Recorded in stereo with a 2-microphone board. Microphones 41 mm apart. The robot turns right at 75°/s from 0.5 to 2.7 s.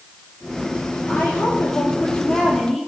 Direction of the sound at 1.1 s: 65° left.